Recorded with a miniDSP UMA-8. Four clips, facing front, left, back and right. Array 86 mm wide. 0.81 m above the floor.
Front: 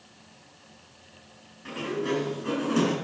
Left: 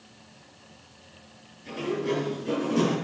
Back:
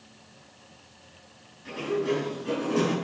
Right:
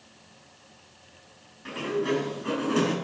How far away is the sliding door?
About 5.5 m.